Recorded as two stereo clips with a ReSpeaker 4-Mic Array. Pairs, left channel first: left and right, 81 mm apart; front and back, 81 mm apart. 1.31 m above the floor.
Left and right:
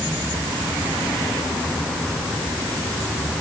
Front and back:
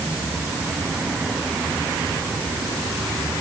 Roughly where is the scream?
I don't hear a scream.